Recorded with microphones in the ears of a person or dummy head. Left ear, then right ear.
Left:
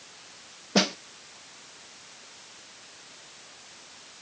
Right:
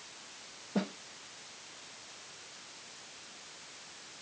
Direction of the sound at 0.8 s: 50° left (ahead or behind).